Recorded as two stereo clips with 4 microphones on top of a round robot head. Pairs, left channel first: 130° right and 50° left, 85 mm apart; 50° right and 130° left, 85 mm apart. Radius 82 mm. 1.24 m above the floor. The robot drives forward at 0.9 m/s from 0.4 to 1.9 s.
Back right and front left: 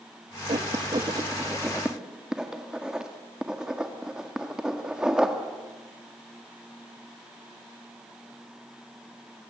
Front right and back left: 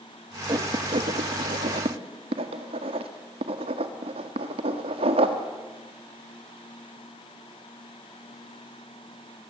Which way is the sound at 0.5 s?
80° left.